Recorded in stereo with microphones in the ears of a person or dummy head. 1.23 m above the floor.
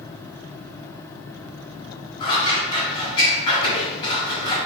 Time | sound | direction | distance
2.2 | scissors | 30° left (ahead or behind) | 2 m